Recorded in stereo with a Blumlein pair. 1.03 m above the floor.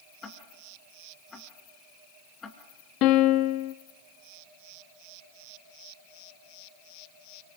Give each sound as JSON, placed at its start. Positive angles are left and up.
{"t": 0.2, "sound": "ticking", "azimuth_deg": 20, "distance_m": 3.0}
{"t": 3.0, "sound": "a piano", "azimuth_deg": 40, "distance_m": 1.0}